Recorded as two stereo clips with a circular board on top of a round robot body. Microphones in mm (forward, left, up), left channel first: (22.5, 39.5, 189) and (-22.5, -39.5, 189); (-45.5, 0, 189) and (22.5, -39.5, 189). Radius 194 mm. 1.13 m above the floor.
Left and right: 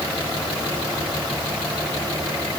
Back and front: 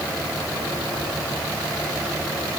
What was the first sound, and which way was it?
Only background noise.